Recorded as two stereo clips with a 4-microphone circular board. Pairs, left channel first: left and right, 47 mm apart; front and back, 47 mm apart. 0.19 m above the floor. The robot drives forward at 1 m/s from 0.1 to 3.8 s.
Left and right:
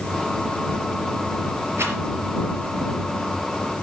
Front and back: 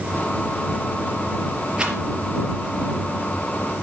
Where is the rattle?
110° right, 4 m.